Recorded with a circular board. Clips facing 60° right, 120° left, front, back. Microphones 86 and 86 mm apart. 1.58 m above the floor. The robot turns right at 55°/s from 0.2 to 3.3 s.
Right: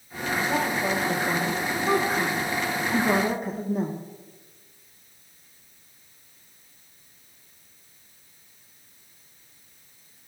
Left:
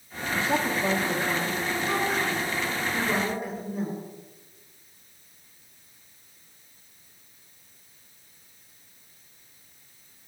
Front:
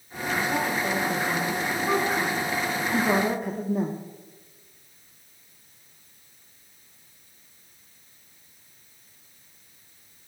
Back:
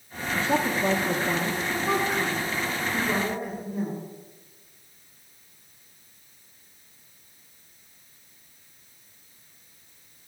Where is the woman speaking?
175° left, 1.2 m; by 4.0 s 20° right, 1.2 m.